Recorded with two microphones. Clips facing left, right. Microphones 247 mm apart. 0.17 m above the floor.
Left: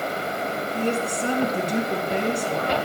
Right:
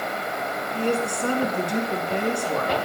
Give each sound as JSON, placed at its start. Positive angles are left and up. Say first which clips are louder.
{"t": 0.7, "sound": "a woman speaking", "louder": "right 2 dB", "side_deg": 20, "distance_m": 1.9}